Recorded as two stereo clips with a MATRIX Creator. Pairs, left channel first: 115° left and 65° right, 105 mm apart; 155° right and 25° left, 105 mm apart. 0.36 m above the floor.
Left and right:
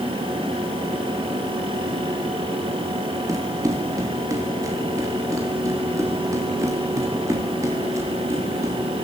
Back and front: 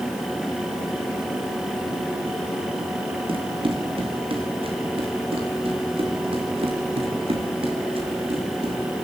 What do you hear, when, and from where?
3.3 s running footsteps: 10° right, 6 m; by 8.8 s 5° right, 9.5 m